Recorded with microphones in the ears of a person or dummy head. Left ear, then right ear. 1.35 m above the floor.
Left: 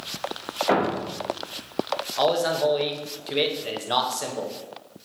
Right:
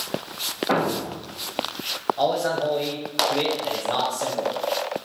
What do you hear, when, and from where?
0.7 s a thud: 50° left (ahead or behind), 1.4 m
2.2 s a man speaking: 25° left (ahead or behind), 0.7 m